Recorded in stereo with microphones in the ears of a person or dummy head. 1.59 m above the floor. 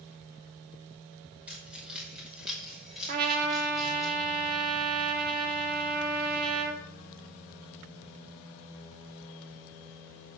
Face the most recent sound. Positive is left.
turn(degrees=-55)  # may be behind; listen again after turning